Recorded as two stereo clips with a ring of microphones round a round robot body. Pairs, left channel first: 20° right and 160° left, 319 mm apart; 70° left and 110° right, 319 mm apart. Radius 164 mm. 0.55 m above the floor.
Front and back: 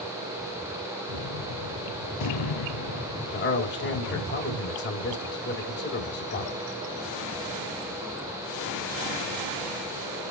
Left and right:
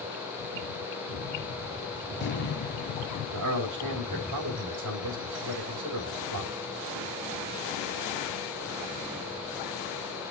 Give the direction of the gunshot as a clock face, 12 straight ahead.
12 o'clock.